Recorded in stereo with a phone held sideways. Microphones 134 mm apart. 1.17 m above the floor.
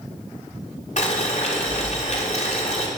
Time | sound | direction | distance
1.0 | boiling | 60° left (ahead or behind) | 3.5 m